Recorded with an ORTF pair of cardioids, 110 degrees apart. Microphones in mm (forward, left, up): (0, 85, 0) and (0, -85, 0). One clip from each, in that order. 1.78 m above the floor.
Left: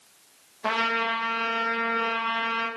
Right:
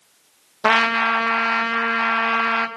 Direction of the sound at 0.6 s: 50° right.